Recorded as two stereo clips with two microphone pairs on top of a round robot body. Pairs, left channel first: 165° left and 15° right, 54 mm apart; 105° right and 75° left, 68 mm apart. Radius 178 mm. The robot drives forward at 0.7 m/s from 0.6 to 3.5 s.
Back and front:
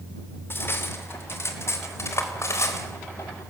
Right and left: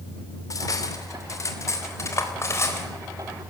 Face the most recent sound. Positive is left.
turn(degrees=-160)